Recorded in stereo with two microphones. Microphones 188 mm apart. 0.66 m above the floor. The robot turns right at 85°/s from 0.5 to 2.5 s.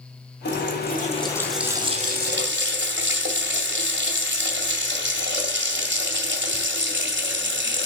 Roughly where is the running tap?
Left.